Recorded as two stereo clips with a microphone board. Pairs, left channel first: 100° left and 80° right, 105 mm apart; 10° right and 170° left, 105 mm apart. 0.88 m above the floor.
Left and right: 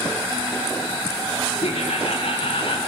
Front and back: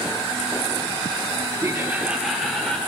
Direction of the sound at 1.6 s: 105° left.